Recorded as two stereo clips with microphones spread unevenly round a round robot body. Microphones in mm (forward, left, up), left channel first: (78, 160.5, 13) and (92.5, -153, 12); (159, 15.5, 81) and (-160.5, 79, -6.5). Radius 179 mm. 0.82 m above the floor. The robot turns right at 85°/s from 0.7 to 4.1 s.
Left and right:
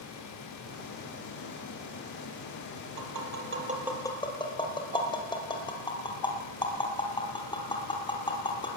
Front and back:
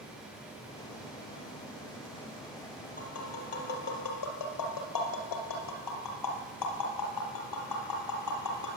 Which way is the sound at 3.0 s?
80° right.